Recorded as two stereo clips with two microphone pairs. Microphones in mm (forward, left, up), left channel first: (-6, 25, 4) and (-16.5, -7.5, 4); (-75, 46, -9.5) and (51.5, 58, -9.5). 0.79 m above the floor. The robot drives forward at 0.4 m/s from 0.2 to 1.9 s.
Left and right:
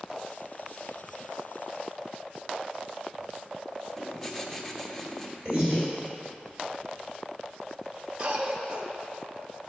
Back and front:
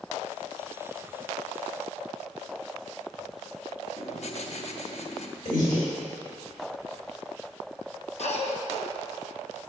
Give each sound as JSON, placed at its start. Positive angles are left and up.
{"t": 4.0, "sound": "writing", "azimuth_deg": 155, "distance_m": 0.6}
{"t": 5.5, "sound": "breathing", "azimuth_deg": -175, "distance_m": 2.5}
{"t": 8.2, "sound": "a cough", "azimuth_deg": -165, "distance_m": 0.9}